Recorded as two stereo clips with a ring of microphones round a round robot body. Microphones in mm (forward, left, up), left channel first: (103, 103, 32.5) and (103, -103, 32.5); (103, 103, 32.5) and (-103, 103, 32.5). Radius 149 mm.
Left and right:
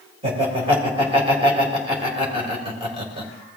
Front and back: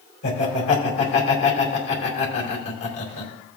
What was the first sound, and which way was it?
Laughter, 25° right.